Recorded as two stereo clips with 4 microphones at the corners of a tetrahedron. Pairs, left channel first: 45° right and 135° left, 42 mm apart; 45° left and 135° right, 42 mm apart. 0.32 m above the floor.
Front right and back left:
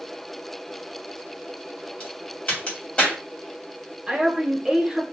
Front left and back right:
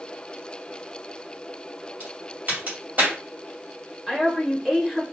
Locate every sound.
2.0 s a crack: 100° right, 1.7 m
4.1 s a woman speaking: 155° left, 0.9 m